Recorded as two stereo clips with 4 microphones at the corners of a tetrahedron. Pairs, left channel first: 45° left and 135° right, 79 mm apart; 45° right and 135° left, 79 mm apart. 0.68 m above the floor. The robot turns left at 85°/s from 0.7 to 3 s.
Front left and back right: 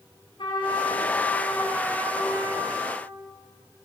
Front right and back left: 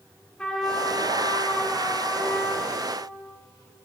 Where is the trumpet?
35° left, 7 m; by 3.0 s 165° right, 7 m.